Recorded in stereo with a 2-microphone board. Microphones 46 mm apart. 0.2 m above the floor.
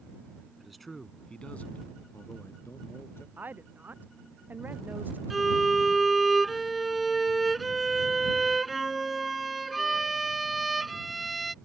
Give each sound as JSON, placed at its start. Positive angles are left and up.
{"t": 0.6, "sound": "a man speaking", "side_deg": -5}
{"t": 3.4, "sound": "a woman speaking", "side_deg": -45}
{"t": 5.3, "sound": "a violin", "side_deg": 0}